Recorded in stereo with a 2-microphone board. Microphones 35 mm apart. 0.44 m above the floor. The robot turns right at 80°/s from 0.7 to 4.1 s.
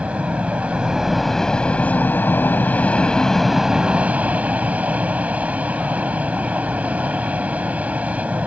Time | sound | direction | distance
0.0 | an aircraft | 45° right | ?